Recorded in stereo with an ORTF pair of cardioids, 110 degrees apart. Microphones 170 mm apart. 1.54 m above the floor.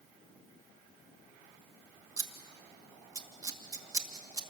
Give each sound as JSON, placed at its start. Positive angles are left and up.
{"t": 2.2, "sound": "scissors", "azimuth_deg": -20, "distance_m": 2.0}